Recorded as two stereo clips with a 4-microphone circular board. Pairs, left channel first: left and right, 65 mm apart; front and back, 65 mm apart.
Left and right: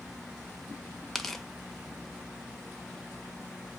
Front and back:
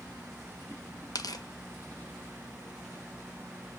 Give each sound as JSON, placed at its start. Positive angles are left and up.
{"t": 1.1, "sound": "tearing paper", "azimuth_deg": 0, "distance_m": 0.7}